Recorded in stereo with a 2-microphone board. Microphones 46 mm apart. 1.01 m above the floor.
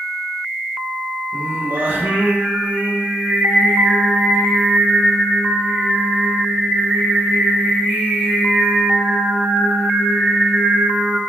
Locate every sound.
1.3 s singing: 55° right (ahead or behind), 0.7 m